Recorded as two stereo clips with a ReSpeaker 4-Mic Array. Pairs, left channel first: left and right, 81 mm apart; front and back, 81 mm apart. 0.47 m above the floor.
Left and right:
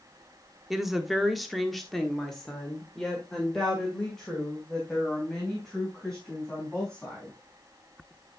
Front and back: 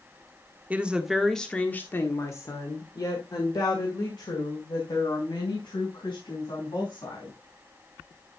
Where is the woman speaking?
170° right, 1.1 m; by 7.3 s 5° left, 4.5 m.